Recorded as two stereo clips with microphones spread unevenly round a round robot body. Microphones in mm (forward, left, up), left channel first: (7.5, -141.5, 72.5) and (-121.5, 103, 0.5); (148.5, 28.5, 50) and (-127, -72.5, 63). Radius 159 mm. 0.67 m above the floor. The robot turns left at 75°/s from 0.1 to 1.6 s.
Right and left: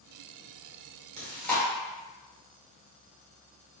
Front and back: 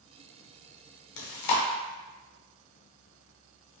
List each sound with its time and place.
1.2 s chewing: 50° left, 0.7 m; by 1.6 s 20° left, 0.7 m